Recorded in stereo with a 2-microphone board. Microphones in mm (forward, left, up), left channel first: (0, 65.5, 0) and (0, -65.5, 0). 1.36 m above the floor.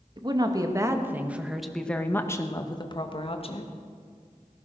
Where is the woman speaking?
35° right (ahead or behind), 1.7 m; by 3.7 s 50° left (ahead or behind), 1.7 m.